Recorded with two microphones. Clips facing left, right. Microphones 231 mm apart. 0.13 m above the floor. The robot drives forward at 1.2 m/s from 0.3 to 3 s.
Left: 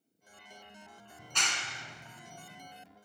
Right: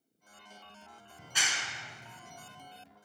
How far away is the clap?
About 1.0 m.